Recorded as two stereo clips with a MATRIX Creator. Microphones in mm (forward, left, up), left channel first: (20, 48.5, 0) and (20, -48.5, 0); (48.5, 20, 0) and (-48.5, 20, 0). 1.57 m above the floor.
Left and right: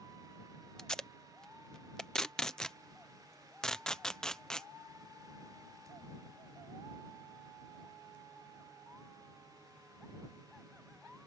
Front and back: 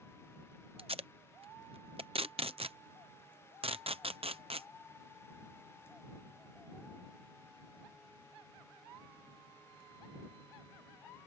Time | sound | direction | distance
0.8 | tape being pulled | 175° left | ?